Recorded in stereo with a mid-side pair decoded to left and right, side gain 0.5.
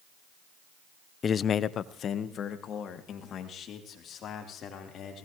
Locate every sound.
1.2 s a man speaking: 40° left, 0.5 m; by 5.3 s 60° left, 5 m